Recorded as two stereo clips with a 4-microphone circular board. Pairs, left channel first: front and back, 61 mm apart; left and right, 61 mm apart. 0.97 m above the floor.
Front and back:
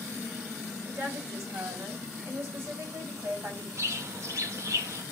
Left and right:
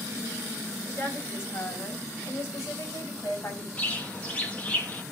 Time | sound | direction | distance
0.8 | a woman speaking | 145° left | 6 m
3.8 | a bird | 155° left | 1.7 m